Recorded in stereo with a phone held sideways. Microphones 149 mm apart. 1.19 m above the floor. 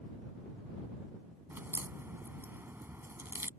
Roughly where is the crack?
Centre.